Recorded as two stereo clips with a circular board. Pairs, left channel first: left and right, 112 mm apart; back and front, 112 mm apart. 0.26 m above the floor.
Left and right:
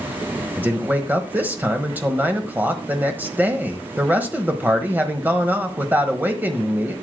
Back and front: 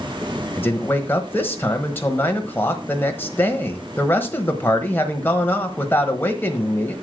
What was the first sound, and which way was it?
A man speaking, 135° right.